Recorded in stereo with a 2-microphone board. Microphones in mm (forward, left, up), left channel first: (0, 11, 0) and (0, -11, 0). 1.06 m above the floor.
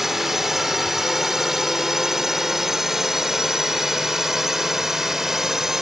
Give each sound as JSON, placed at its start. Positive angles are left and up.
{"t": 0.0, "sound": "a drone", "side_deg": -15}